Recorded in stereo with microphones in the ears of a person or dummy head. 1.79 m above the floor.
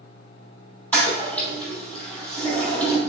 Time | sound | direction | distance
0.9 | a toilet flushing | 10° left (ahead or behind) | 3 m